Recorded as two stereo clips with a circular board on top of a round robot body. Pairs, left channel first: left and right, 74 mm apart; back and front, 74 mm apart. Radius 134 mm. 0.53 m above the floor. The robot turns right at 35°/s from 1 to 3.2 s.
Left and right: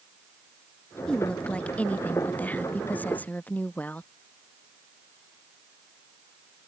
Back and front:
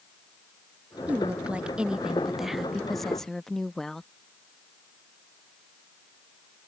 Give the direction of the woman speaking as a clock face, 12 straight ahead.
11 o'clock.